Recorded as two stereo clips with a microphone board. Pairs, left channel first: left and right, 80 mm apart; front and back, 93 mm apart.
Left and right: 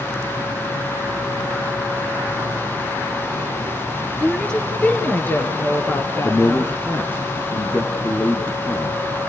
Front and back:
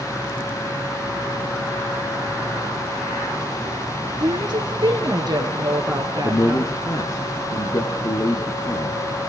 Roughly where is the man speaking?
Ahead left.